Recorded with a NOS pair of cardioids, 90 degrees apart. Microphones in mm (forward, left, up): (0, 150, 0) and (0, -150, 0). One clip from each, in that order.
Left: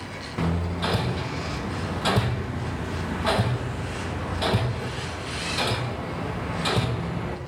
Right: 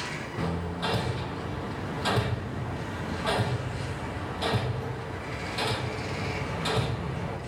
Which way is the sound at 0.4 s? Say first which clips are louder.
Left 5 dB; 30° left.